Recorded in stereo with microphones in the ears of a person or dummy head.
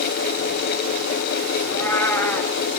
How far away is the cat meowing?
About 4 m.